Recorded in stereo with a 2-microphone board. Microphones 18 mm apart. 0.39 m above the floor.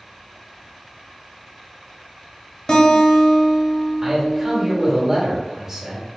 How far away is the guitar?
About 1.2 m.